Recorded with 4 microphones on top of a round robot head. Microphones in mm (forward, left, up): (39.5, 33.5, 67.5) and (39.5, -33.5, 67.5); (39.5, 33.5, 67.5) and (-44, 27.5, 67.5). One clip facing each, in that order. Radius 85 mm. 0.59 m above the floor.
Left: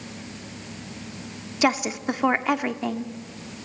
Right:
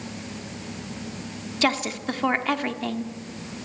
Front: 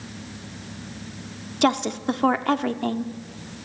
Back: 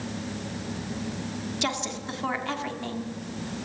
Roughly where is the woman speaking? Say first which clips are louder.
Left 2 dB, front 12 dB; ahead.